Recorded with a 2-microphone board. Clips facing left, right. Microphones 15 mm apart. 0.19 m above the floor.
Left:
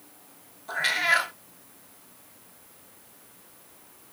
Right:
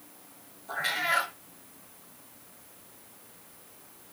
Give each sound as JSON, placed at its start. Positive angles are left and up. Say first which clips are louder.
{"t": 0.7, "sound": "a cat meowing", "louder": "left 5 dB", "side_deg": 35, "distance_m": 0.6}